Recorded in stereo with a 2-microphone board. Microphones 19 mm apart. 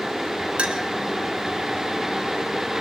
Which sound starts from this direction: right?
A clink, at 0.6 s.